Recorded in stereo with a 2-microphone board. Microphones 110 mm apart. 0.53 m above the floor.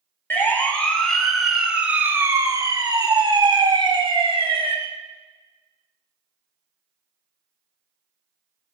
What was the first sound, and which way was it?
A siren, 20° left (ahead or behind).